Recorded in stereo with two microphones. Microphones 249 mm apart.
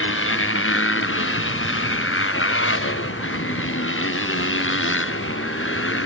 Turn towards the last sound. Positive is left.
turn(degrees=55)  # may be behind; listen again after turning